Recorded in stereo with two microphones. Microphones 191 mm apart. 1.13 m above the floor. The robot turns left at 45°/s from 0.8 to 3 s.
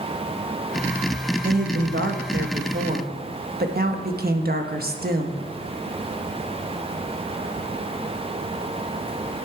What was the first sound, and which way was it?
A woman speaking, 55° right.